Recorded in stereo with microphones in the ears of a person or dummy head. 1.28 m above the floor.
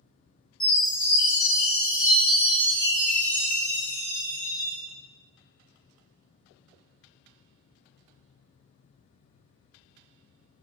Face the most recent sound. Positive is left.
turn(degrees=20)  # may be behind; listen again after turning